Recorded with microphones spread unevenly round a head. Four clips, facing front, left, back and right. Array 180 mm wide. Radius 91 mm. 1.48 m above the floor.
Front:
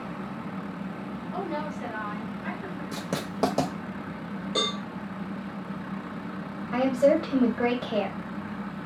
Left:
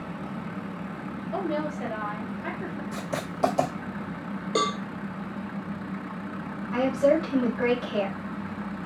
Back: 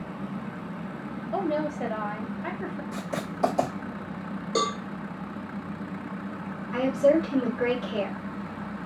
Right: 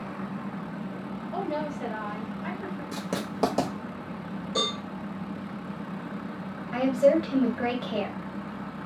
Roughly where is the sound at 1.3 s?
Behind.